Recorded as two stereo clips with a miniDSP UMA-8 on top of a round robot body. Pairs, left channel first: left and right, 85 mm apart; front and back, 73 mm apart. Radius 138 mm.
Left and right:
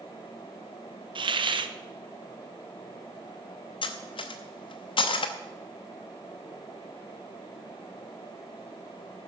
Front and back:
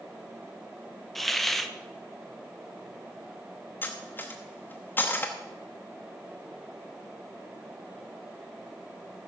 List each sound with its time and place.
1.1 s a hiss: 90° right, 0.9 m
3.8 s cutlery clinking: 65° left, 0.6 m